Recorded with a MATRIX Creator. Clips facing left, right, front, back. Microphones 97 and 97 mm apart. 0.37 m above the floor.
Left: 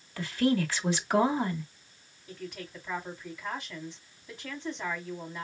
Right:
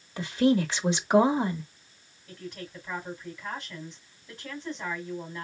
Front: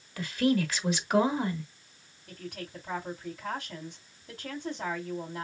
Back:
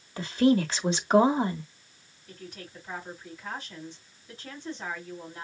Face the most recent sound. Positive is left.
turn(degrees=5)